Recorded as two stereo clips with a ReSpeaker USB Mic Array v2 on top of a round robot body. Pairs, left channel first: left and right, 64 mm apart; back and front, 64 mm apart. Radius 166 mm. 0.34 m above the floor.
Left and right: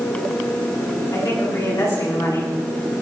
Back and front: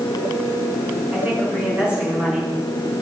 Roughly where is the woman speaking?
Left.